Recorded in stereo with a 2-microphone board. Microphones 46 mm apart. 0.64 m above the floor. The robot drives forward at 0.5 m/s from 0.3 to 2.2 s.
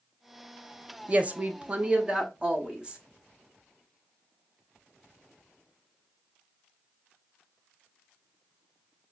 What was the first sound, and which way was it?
A woman speaking, 30° right (ahead or behind).